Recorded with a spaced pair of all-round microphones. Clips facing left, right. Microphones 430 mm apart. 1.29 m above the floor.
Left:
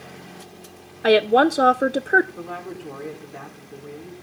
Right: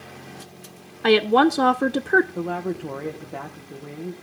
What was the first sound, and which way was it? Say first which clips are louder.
A woman speaking: left 1 dB; 15° right (ahead or behind).